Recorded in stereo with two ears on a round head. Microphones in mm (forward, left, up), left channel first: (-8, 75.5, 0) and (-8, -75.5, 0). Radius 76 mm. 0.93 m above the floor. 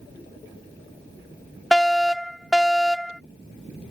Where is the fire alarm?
Centre (ahead or behind).